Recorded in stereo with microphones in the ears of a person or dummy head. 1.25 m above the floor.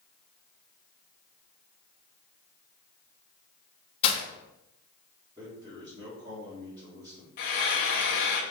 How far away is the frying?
About 1.1 m.